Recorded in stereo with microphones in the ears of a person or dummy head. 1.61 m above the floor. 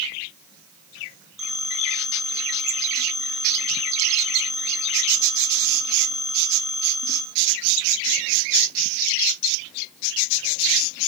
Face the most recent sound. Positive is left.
turn(degrees=-5)  # may be behind; listen again after turning